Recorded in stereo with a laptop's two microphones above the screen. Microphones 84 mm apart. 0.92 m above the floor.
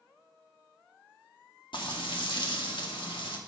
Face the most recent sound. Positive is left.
turn(degrees=70)  # may be behind; listen again after turning